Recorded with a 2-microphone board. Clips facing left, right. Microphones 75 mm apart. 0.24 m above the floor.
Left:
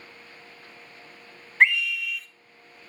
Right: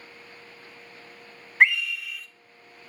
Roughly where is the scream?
Centre.